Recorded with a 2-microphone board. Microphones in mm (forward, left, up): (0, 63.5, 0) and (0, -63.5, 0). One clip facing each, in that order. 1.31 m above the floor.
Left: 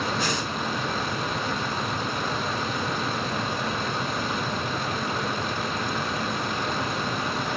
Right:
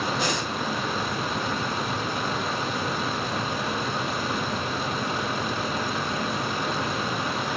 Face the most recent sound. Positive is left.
turn(degrees=-25)  # may be behind; listen again after turning